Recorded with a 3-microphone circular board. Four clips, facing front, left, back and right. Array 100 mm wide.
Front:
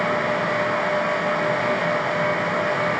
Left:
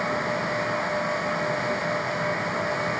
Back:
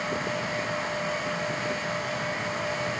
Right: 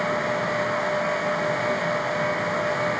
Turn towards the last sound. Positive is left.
No sound to turn to.